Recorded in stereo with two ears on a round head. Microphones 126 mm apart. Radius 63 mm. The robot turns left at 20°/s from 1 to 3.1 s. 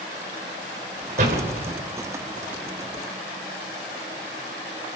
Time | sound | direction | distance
1.2 | a door slam | 55° right (ahead or behind) | 4 m